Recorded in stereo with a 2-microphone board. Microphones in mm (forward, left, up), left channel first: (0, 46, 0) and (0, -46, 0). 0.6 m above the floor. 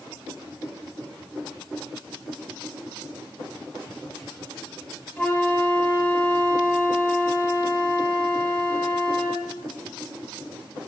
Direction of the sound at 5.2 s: 10° left (ahead or behind).